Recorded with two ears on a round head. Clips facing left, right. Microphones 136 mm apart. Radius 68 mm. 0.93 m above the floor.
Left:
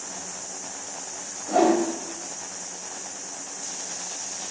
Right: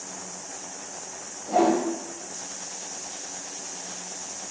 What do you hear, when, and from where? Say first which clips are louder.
1.5 s a whoosh: left 1 dB; 5° right (ahead or behind), 0.7 m